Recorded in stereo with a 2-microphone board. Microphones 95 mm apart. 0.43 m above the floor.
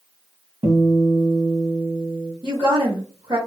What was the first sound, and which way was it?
A guitar, 70° right (ahead or behind).